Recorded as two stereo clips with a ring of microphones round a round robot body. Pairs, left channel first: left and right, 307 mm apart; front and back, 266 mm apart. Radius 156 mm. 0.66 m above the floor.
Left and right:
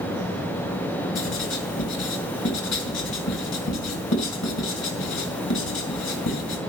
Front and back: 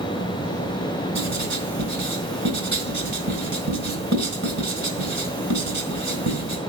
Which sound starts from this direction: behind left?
Writing, at 1.1 s.